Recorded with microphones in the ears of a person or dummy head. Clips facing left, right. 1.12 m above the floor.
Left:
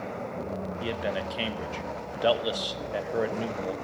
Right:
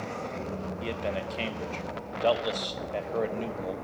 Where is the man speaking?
10° left (ahead or behind), 0.9 m.